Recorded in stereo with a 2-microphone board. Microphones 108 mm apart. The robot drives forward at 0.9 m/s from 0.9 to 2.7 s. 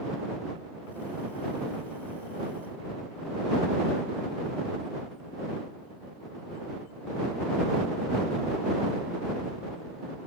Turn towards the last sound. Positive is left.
No sound to turn to.